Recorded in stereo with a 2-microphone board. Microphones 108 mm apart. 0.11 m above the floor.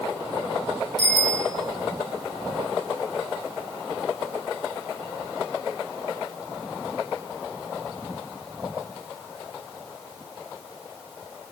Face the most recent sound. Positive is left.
turn(degrees=5)  # may be behind; listen again after turning